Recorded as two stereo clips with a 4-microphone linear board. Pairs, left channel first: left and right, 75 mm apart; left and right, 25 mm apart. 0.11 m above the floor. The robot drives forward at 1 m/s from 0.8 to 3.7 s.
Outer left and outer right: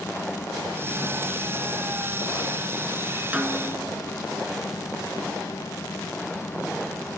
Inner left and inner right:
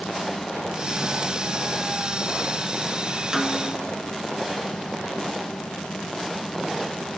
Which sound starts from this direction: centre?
A snare drum, at 3.3 s.